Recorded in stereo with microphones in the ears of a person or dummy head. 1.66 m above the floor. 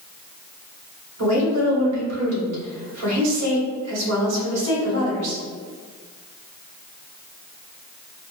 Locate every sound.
1.2 s a woman speaking: 80° right, 1.3 m